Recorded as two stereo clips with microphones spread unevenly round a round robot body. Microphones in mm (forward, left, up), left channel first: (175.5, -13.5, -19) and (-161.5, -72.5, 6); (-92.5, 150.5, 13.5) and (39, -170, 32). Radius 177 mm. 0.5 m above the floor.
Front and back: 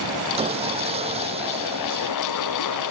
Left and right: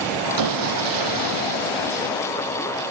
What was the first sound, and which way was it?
Sawing, 95° right.